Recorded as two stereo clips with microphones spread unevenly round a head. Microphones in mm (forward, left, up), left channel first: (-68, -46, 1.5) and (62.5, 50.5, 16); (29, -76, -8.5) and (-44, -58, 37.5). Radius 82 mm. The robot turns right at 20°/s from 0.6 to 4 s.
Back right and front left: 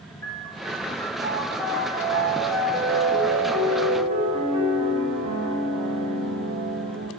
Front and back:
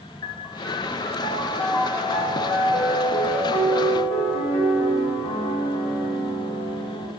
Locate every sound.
0.2 s a piano: 70° right, 1.5 m; by 7.1 s 5° right, 1.5 m